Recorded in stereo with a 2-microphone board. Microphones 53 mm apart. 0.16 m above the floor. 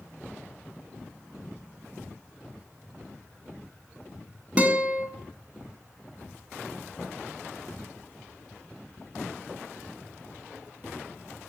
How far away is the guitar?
About 0.7 m.